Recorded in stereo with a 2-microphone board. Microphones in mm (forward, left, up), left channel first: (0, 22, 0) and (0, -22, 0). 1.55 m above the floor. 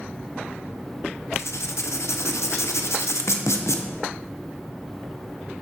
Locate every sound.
1.3 s writing: 80° left, 0.8 m